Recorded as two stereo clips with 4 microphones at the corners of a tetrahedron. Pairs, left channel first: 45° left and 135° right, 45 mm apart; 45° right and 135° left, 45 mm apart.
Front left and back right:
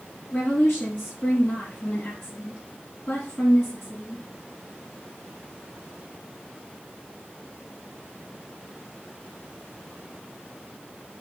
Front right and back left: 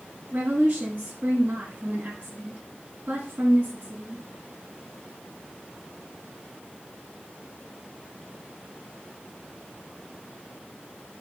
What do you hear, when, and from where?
0.3 s a woman speaking: 80° left, 6 m